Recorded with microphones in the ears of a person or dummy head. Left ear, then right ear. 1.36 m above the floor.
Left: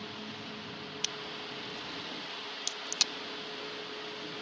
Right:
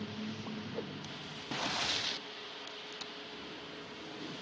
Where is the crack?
75° left (ahead or behind).